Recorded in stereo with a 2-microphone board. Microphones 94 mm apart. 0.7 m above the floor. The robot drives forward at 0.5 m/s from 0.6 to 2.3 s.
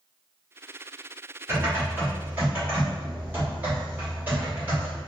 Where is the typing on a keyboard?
30° right (ahead or behind), 1.2 m; by 5.0 s 20° right (ahead or behind), 1.5 m.